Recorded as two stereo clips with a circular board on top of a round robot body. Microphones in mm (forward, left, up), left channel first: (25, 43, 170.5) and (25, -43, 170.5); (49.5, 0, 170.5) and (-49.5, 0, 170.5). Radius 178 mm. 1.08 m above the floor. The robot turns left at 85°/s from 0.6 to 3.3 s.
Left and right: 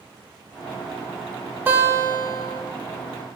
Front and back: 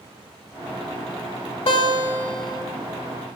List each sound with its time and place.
1.7 s a guitar: 25° right, 4 m; by 2.6 s 105° right, 4 m